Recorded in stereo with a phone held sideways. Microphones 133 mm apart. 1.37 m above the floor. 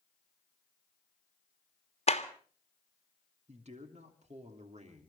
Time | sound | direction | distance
2.1 | a clap | 50° left (ahead or behind) | 1.8 m
3.5 | a man speaking | 60° right (ahead or behind) | 3 m